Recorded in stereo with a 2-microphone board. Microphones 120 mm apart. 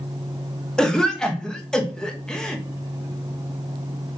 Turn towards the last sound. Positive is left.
turn(degrees=5)  # may be behind; listen again after turning